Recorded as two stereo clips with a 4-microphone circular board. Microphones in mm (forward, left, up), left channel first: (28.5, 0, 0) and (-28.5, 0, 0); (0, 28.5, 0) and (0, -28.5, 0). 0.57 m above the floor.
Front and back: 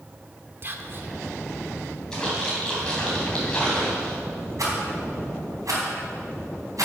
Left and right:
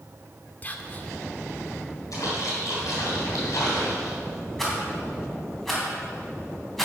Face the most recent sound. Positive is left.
turn(degrees=175)